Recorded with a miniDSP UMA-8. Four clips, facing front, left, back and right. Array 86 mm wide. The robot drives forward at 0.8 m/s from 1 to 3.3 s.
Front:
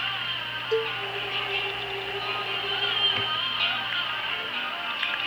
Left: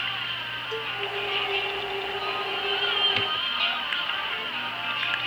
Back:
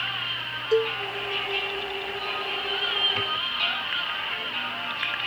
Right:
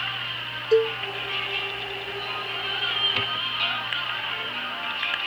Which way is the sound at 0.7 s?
110° right.